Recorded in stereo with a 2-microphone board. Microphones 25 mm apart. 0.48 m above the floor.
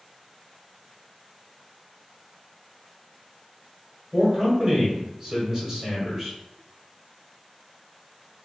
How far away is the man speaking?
About 1.2 m.